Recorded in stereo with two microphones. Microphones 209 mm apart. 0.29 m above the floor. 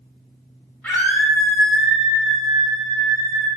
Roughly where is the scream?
Centre.